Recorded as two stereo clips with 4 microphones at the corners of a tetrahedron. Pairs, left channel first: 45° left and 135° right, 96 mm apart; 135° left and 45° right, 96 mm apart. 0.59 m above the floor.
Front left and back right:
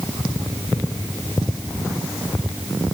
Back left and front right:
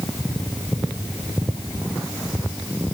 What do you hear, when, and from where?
Only background noise.